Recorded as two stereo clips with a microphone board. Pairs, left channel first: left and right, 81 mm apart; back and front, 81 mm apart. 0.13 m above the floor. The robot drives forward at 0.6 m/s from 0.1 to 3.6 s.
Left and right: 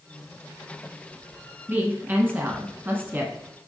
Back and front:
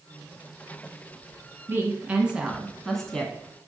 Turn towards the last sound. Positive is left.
turn(degrees=-135)